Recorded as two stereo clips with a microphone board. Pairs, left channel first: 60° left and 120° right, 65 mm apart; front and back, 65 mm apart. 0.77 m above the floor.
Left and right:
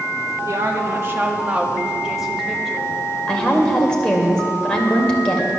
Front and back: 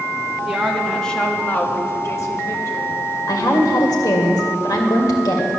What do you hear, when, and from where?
0.5 s a woman speaking: 105° right, 1.2 m; by 3.1 s 25° right, 2 m
3.3 s a woman speaking: 20° right, 2.5 m